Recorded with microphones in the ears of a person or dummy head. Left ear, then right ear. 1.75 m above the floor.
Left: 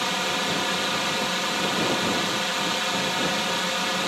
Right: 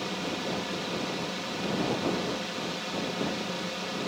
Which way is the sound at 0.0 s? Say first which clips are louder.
Left 8 dB; 45° left (ahead or behind).